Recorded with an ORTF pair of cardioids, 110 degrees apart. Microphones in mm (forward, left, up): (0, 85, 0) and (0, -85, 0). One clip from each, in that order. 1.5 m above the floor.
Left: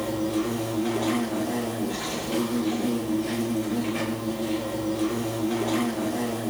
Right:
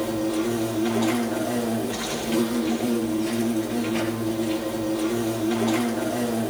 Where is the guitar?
No guitar in this recording.